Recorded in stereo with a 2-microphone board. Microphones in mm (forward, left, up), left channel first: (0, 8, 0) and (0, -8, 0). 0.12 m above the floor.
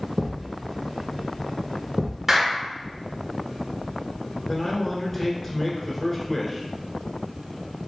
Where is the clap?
25° right (ahead or behind), 1.2 m.